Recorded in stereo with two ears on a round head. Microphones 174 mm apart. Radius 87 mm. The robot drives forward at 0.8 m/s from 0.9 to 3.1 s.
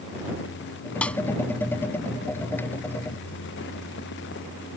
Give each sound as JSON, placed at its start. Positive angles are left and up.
{"t": 1.0, "sound": "a snare drum", "side_deg": 5}